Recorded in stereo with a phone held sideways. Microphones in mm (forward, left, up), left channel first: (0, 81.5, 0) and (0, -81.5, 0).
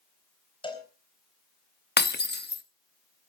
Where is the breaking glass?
75° left (ahead or behind), 0.8 m.